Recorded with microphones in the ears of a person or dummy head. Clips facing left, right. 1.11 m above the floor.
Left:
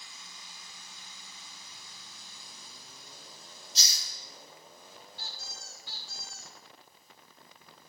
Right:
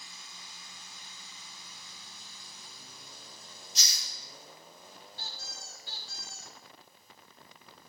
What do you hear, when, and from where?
3.8 s a hiss: 35° left (ahead or behind), 1.0 m
5.2 s a squeak: 35° right (ahead or behind), 1.2 m